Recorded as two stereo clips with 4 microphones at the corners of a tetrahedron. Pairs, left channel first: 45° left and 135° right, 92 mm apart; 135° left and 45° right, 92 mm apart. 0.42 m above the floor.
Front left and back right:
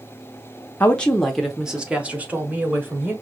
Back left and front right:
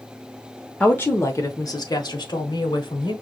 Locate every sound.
0.8 s a woman speaking: 85° left, 0.7 m; by 3.1 s 160° left, 1.7 m